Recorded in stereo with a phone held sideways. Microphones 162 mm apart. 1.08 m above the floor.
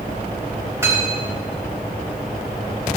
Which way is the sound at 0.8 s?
15° right (ahead or behind).